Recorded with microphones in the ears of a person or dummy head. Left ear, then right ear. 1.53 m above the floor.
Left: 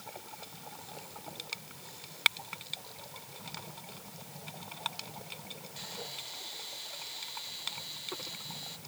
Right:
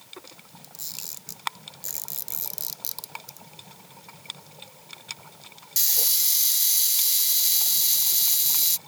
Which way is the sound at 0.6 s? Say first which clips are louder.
Right 7 dB; 80° right.